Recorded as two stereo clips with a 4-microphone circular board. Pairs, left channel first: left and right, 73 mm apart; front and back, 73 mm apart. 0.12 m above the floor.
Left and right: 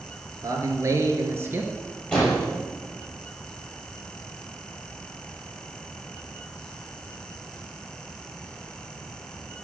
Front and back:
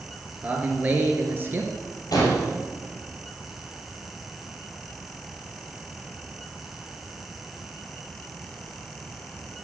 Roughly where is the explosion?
Ahead.